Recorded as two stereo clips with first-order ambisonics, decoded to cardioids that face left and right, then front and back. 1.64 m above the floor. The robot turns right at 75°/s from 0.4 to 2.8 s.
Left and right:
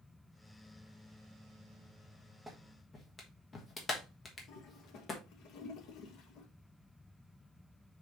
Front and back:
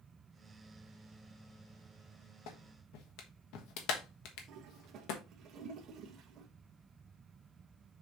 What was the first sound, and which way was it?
A clap, 5° right.